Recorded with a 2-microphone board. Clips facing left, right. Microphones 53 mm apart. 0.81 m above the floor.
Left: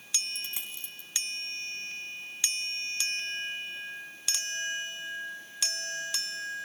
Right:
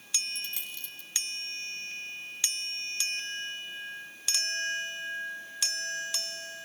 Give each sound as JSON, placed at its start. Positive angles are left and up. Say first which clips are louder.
{"t": 0.3, "sound": "a dropped coin", "louder": "even", "side_deg": 20, "distance_m": 2.5}